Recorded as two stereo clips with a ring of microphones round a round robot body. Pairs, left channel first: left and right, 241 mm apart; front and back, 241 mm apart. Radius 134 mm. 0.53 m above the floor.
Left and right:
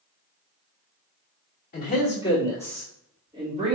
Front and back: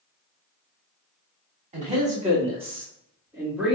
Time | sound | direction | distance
1.7 | a man speaking | 130° left | 1.8 m